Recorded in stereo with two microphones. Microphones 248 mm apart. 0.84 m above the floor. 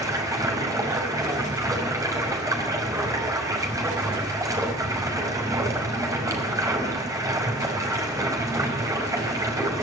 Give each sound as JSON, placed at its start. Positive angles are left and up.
{"t": 0.0, "sound": "running water", "side_deg": -15, "distance_m": 5.0}